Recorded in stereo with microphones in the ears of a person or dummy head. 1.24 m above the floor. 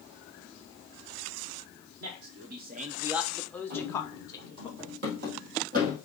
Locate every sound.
2.0 s a man speaking: 55° right (ahead or behind), 0.9 m; by 4.7 s 25° left (ahead or behind), 1.7 m
3.7 s running footsteps: 60° right (ahead or behind), 3 m; by 6.0 s 50° right (ahead or behind), 3 m